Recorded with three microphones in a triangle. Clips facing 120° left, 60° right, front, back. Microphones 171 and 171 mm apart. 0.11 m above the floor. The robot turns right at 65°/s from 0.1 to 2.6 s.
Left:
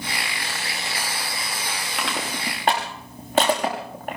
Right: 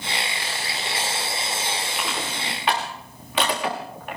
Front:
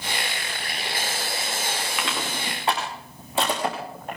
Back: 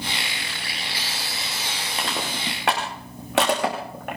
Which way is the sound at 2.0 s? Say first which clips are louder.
Left 1 dB, back 1 dB; 125° left.